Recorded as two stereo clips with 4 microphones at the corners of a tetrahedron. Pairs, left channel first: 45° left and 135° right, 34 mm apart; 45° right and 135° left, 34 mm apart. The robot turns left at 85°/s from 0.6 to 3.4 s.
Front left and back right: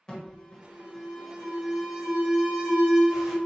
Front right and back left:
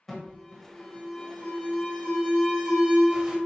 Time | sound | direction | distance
0.1 | an alarm | 20° left | 1.5 m